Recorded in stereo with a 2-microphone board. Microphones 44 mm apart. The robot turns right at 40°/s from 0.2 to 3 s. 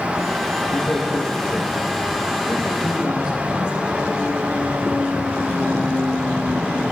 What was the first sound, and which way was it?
A man speaking, 75° left (ahead or behind).